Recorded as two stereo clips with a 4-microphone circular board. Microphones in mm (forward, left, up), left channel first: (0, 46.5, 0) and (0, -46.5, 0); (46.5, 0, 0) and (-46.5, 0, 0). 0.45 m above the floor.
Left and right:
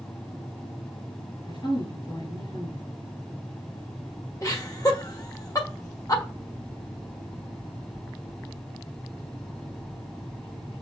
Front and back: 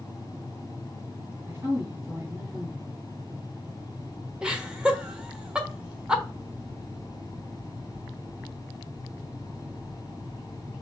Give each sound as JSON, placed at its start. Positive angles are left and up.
{"t": 1.5, "sound": "a woman speaking", "azimuth_deg": 115, "distance_m": 3.0}
{"t": 4.4, "sound": "laughter", "azimuth_deg": 105, "distance_m": 1.3}